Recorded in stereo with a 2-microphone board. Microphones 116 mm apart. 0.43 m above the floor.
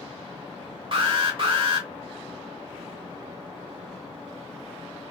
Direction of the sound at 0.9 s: 50° right (ahead or behind).